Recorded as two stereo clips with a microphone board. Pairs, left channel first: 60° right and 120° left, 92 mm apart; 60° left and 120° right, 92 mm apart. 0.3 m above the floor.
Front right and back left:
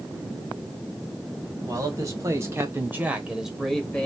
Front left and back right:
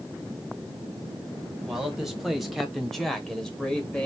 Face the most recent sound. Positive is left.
turn(degrees=0)